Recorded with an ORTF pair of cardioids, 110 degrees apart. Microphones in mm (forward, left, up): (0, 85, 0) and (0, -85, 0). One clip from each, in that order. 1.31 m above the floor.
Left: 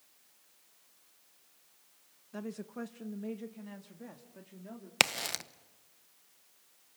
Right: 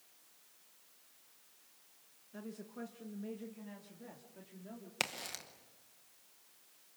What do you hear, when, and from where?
2.3 s a woman speaking: 40° left, 0.8 m; by 4.9 s 25° left, 3 m
5.0 s a crack: 45° left, 0.9 m